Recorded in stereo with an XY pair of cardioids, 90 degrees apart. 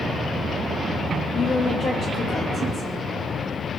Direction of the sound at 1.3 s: 55° left.